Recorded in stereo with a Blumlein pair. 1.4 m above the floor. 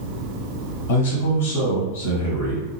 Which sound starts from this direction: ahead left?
A man speaking, at 0.9 s.